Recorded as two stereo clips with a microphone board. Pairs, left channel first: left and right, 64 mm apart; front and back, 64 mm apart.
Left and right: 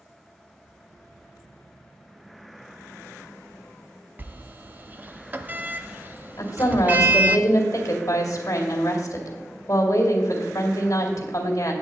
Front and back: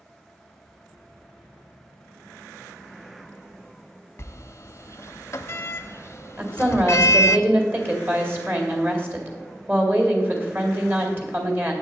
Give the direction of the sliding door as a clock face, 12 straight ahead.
1 o'clock.